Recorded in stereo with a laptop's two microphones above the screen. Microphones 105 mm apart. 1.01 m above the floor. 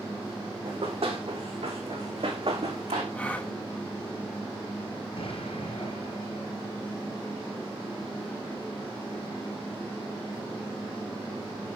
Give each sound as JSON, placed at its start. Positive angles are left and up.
{"t": 0.7, "sound": "running footsteps", "side_deg": -70, "distance_m": 3.5}
{"t": 3.1, "sound": "a gasp", "side_deg": 15, "distance_m": 1.1}
{"t": 5.2, "sound": "an explosion", "side_deg": 65, "distance_m": 2.5}